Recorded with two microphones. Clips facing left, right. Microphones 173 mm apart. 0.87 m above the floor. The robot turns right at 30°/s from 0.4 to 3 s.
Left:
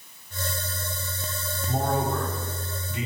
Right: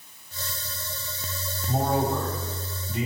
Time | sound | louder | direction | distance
1.7 | a man speaking | right 2 dB | 175° right | 1.8 m